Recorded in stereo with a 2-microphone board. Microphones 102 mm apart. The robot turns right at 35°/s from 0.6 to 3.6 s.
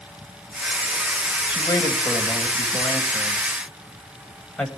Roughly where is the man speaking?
Left.